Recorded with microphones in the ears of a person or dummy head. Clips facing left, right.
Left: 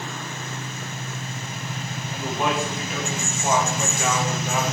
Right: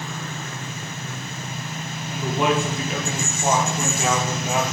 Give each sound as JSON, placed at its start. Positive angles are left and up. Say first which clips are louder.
{"t": 2.1, "sound": "a man speaking", "louder": "right 4 dB", "side_deg": -65, "distance_m": 3.5}